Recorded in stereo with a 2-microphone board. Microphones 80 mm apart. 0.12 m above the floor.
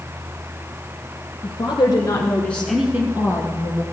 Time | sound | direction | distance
1.4 | a woman speaking | 55° left (ahead or behind) | 2 m